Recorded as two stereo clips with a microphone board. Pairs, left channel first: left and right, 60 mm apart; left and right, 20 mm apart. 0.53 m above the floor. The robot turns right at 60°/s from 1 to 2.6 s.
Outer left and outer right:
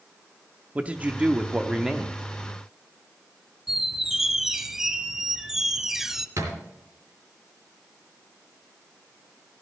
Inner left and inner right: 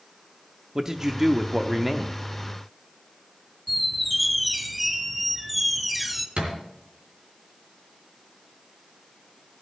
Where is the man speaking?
20° right (ahead or behind), 0.7 m; by 2.2 s 5° right (ahead or behind), 0.7 m.